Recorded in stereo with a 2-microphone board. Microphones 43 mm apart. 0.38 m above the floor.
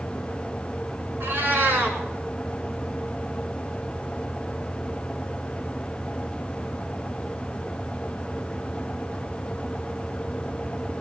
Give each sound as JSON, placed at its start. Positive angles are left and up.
{"t": 1.2, "sound": "a cat meowing", "side_deg": -65, "distance_m": 2.0}